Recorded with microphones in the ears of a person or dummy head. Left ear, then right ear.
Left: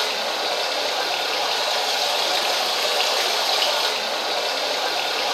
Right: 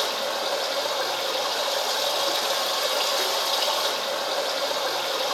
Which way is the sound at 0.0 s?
30° left (ahead or behind).